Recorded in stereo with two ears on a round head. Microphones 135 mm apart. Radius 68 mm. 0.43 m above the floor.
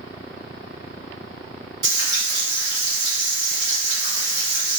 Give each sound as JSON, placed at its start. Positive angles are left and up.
{"t": 1.8, "sound": "frying", "side_deg": -30, "distance_m": 1.6}